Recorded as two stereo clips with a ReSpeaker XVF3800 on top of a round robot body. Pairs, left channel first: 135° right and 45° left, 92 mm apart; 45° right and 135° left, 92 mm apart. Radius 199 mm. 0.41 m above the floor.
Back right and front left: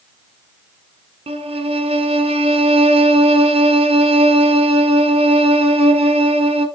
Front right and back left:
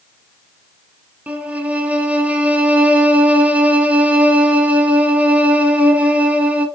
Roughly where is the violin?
Ahead left.